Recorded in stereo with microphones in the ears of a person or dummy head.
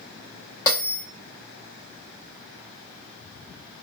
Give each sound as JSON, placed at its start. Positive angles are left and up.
{"t": 0.7, "sound": "a bell", "side_deg": 15, "distance_m": 1.1}